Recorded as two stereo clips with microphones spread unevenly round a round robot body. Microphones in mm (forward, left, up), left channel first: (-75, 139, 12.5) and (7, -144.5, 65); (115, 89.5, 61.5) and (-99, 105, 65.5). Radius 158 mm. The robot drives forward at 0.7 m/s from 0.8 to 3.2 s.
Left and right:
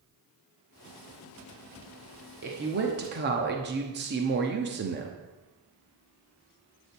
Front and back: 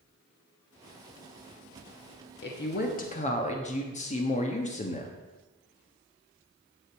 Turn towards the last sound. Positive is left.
turn(degrees=-25)